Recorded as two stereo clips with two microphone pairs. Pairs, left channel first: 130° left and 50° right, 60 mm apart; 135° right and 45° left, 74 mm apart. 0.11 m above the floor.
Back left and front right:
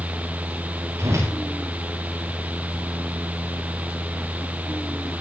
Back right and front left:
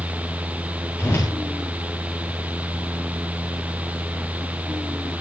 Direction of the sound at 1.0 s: 85° right.